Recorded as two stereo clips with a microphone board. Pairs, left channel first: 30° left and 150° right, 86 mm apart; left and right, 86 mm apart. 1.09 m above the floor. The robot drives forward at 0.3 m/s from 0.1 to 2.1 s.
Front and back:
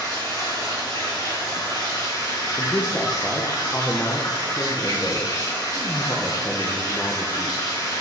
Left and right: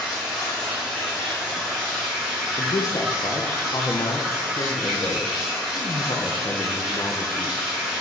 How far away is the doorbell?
No doorbell in this recording.